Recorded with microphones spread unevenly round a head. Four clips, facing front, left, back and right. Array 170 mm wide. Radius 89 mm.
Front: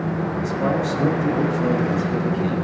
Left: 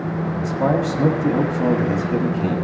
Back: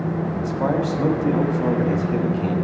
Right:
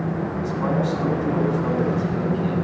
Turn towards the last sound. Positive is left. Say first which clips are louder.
# left 4 dB, back 1 dB
turn(degrees=85)